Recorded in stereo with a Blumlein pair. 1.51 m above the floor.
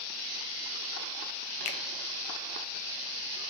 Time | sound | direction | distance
1.6 | a finger snap | 40° left | 0.5 m